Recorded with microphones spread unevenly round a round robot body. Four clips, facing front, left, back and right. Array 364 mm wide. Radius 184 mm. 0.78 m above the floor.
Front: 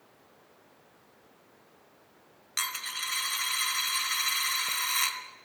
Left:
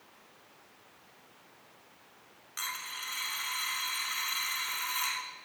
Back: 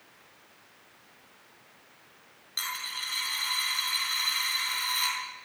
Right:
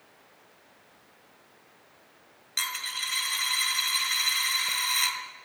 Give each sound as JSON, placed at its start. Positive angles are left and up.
{"t": 2.6, "sound": "a dropped coin", "azimuth_deg": -35, "distance_m": 1.6}